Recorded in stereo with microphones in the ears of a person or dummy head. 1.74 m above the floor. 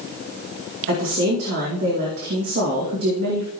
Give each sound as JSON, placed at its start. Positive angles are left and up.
{"t": 0.9, "sound": "a woman speaking", "side_deg": -55, "distance_m": 2.5}